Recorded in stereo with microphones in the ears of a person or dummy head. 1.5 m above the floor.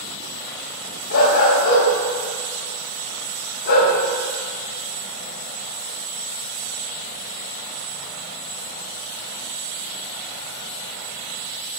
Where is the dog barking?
55° left (ahead or behind), 4 m.